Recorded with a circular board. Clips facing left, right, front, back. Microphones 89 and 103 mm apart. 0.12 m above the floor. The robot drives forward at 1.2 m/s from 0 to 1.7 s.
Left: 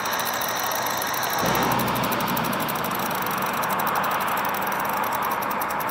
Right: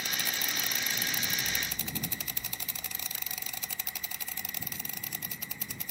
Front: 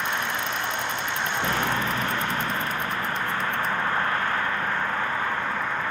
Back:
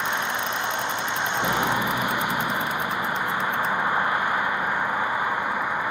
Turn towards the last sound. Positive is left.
turn(degrees=105)